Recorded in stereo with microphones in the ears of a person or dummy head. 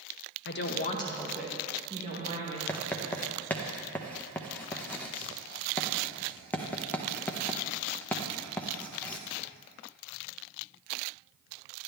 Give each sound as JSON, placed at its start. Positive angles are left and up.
{"t": 0.5, "sound": "a woman speaking", "side_deg": 55, "distance_m": 1.0}
{"t": 2.7, "sound": "writing", "side_deg": 5, "distance_m": 0.7}